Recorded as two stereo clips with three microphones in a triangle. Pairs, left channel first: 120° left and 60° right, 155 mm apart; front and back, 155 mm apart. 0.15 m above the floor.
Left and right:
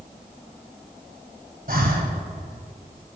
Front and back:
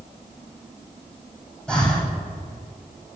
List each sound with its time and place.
1.7 s breathing: 85° right, 1.4 m